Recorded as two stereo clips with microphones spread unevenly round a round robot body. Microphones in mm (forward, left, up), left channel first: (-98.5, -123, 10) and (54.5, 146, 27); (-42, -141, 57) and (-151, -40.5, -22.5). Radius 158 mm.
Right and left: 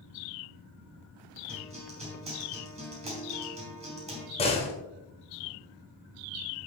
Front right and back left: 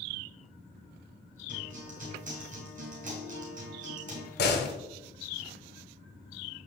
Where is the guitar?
130° left, 3.5 m.